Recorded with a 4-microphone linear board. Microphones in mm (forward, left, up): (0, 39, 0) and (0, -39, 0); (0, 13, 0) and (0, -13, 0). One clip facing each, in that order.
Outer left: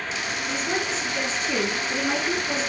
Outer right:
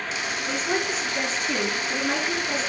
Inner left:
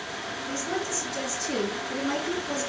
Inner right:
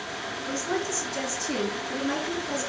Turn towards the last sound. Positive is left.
turn(degrees=25)  # may be behind; listen again after turning